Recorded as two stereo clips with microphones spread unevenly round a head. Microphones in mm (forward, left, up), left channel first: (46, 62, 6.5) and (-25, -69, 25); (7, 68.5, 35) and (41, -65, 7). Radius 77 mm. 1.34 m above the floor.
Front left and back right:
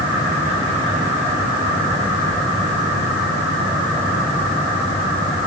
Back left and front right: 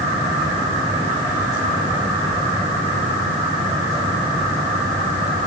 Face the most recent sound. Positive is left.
No sound to turn to.